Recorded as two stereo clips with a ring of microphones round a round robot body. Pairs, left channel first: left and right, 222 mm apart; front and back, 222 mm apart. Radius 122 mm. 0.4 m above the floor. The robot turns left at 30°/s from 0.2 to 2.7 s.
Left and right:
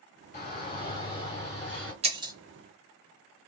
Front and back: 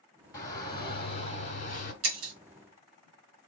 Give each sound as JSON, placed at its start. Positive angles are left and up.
{"t": 0.3, "sound": "a shout", "azimuth_deg": 60, "distance_m": 1.6}
{"t": 2.0, "sound": "breaking glass", "azimuth_deg": -155, "distance_m": 0.9}